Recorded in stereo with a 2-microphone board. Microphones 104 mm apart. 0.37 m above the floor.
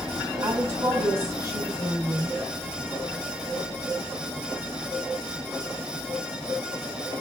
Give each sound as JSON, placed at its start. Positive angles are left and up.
{"t": 0.4, "sound": "a woman speaking", "side_deg": -35, "distance_m": 3.5}